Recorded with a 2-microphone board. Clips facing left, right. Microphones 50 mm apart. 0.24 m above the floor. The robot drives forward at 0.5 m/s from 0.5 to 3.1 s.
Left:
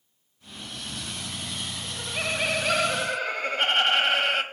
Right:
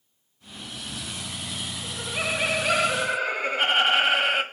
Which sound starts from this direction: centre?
Laughter, at 1.8 s.